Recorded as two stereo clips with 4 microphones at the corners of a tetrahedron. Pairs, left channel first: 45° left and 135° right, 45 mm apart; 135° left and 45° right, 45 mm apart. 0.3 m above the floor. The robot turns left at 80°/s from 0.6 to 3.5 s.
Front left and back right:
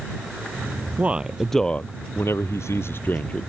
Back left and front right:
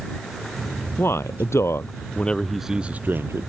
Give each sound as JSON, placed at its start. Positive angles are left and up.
{"t": 1.0, "sound": "a man speaking", "azimuth_deg": 170}